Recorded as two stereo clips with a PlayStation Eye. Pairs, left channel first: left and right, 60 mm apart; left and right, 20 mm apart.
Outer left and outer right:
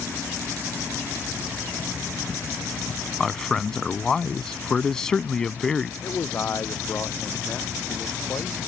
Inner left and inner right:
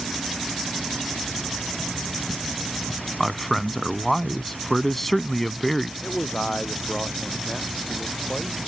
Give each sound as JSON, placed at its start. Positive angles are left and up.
{"t": 3.2, "sound": "a man speaking", "side_deg": 10}
{"t": 6.0, "sound": "a man speaking", "side_deg": 35}